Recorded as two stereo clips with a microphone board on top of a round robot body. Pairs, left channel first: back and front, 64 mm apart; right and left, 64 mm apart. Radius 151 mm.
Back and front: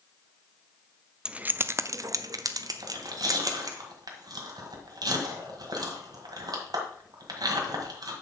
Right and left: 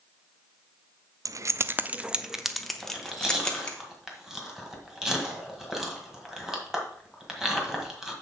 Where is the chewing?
5° left, 1.7 m.